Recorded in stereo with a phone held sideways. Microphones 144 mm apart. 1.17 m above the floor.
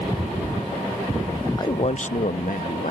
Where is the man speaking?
25° left (ahead or behind); by 2.9 s 75° left (ahead or behind).